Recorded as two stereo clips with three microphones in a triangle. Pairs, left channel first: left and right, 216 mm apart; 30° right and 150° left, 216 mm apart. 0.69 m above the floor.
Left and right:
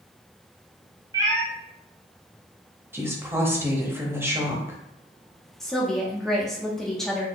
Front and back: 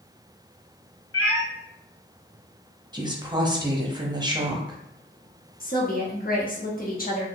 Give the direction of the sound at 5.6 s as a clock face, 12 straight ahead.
12 o'clock.